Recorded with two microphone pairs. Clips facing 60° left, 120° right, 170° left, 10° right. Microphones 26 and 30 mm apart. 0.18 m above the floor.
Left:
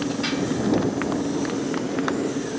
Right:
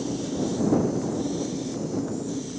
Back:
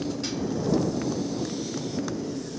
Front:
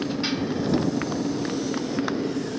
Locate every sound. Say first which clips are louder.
0.0 s a motorcycle: left 3 dB, front 3 dB; 45° left